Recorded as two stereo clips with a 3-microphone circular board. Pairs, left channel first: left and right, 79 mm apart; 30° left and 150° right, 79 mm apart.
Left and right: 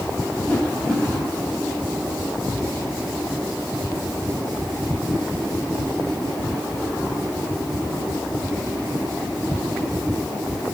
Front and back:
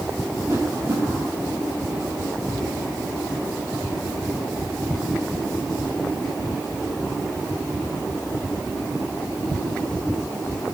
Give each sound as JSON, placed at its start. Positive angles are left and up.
{"t": 0.5, "sound": "a whoosh", "azimuth_deg": 165, "distance_m": 4.0}